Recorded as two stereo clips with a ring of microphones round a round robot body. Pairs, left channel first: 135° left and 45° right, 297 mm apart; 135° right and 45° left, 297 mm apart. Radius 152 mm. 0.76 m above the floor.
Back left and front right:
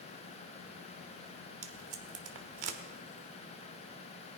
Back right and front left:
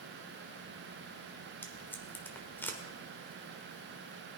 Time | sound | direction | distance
1.6 | tape being pulled | 50° right | 1.5 m